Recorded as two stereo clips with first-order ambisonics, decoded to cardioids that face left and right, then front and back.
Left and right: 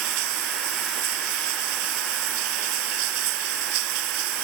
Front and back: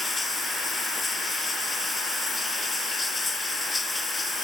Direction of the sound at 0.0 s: 80° right.